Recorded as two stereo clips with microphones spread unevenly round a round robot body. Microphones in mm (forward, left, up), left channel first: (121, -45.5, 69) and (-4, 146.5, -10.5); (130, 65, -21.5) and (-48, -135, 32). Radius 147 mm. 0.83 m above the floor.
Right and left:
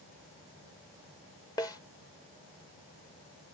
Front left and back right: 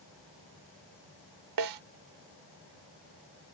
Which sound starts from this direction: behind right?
A snare drum, at 1.6 s.